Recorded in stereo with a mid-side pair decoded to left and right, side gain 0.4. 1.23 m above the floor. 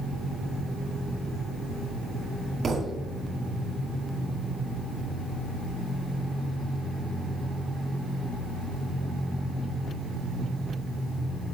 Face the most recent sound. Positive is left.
turn(degrees=-45)